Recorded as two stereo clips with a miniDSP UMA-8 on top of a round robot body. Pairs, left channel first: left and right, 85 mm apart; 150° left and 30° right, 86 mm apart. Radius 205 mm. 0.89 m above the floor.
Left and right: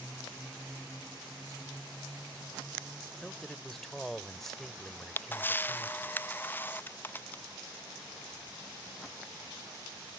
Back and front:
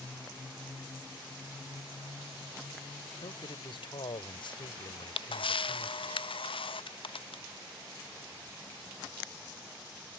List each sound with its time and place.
3.2 s a man speaking: 175° left
4.9 s a camera shutter: 155° left